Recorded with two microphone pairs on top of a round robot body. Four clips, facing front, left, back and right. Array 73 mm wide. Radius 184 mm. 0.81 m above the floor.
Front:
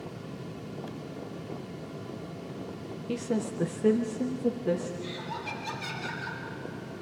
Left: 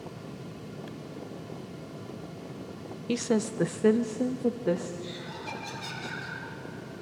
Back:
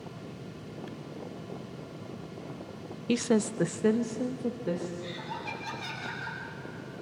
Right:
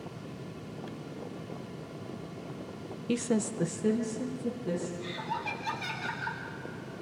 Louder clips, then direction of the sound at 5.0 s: Right 4 dB, front 1 dB; 100° right.